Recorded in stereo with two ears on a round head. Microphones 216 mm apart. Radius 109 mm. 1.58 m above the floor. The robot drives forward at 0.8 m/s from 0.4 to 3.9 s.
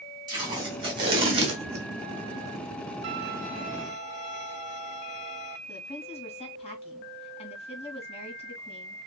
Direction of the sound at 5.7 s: 25° left (ahead or behind).